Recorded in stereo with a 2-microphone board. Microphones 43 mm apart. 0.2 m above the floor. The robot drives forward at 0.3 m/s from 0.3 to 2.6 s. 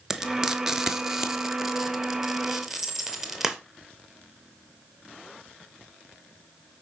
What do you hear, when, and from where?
0.1 s frying: 15° right (ahead or behind), 1.4 m; by 3.6 s 10° right (ahead or behind), 2 m
2.6 s a camera shutter: 60° right (ahead or behind), 2 m